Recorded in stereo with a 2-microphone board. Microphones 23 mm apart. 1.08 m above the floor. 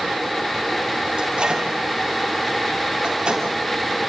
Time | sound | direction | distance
1.2 | a microwave | 45° right (ahead or behind) | 6 m